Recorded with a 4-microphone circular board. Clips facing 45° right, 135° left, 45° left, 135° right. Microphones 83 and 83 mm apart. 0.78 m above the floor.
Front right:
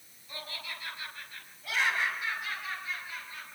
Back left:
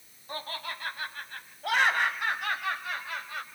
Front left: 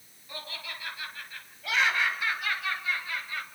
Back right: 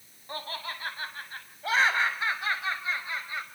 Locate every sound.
0.3 s laughter: straight behind, 5 m; by 3.5 s 155° left, 4 m